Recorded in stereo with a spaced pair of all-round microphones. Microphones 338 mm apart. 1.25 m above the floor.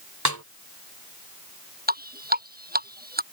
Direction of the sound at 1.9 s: 25° right (ahead or behind).